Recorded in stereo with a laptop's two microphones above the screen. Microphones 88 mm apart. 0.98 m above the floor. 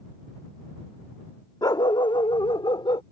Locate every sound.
1.6 s a dog barking: 50° left (ahead or behind); by 3.0 s 75° left (ahead or behind)